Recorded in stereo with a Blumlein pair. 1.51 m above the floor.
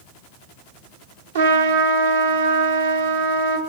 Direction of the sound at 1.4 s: 65° right.